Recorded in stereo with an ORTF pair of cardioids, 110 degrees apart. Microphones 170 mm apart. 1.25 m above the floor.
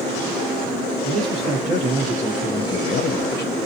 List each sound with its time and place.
1.0 s a man speaking: 50° right, 1.3 m; by 3.6 s 80° left, 0.8 m